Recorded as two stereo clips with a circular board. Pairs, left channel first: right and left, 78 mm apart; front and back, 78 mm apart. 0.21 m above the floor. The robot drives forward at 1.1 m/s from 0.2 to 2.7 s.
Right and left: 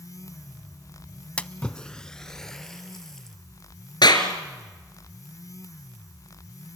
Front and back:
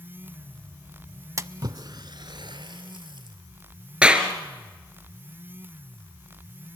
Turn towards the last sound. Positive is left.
turn(degrees=-105)